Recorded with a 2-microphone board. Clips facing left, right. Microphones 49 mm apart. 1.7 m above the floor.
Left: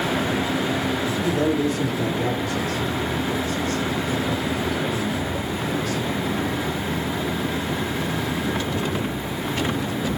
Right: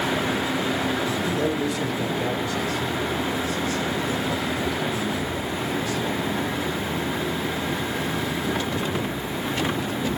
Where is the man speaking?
45° left (ahead or behind), 4.5 m; by 6.0 s 55° left (ahead or behind), 7.5 m.